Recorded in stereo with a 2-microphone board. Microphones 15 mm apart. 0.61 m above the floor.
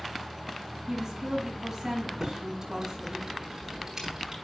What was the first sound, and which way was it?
A woman speaking, 30° right (ahead or behind).